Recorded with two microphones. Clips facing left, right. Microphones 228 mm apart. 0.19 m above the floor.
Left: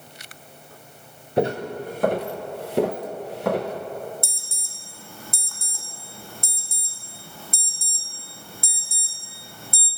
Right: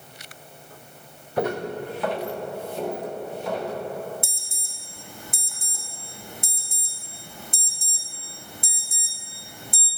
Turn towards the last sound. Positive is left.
turn(degrees=-20)  # may be behind; listen again after turning